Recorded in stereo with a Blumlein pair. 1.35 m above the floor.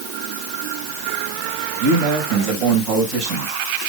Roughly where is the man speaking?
Ahead right.